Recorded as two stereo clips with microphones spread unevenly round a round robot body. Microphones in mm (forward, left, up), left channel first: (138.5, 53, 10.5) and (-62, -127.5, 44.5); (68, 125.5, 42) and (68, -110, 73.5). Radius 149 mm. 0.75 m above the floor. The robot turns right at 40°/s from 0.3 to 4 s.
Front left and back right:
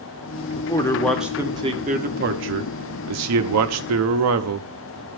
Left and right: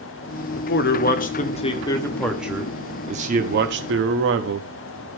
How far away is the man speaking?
About 1.0 m.